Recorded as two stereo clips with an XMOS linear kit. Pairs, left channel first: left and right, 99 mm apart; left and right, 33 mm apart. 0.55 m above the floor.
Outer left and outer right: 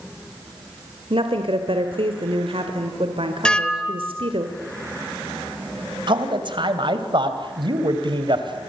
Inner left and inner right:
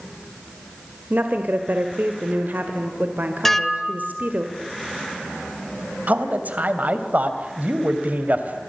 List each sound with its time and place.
1.1 s a woman speaking: 65° right (ahead or behind), 2 m
3.5 s dishes clattering: 10° left (ahead or behind), 1.5 m
6.1 s a man speaking: 55° right (ahead or behind), 3 m